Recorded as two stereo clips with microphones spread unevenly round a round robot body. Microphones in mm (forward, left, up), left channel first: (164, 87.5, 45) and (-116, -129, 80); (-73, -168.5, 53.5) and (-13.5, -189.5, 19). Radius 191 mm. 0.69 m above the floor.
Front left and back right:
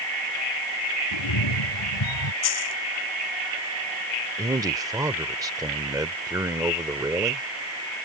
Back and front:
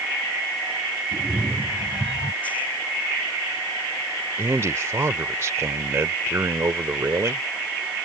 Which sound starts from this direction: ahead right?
A man speaking, at 4.4 s.